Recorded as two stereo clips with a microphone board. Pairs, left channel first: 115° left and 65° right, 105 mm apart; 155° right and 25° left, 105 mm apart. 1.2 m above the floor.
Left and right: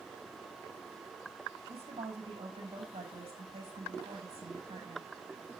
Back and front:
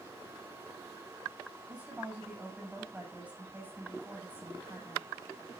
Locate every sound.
1.7 s a woman speaking: 50° right, 9 m